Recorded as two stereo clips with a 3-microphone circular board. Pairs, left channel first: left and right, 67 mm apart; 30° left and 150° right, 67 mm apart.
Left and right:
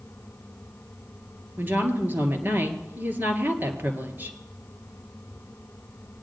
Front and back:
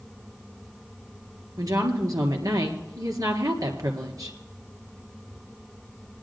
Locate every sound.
1.6 s a woman speaking: 145° right, 2.5 m